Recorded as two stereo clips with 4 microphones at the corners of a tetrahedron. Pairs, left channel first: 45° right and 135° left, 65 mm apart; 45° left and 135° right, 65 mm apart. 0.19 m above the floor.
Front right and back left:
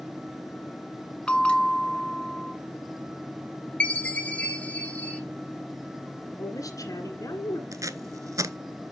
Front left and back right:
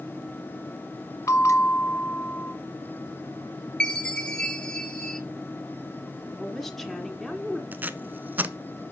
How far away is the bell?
About 0.7 m.